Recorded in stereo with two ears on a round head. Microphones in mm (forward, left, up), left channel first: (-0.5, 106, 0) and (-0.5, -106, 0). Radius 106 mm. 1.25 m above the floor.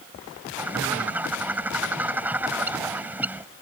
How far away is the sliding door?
No sliding door in this recording.